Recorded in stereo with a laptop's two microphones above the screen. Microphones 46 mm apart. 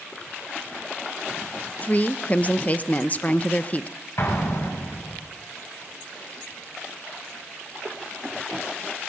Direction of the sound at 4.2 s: 65° left (ahead or behind).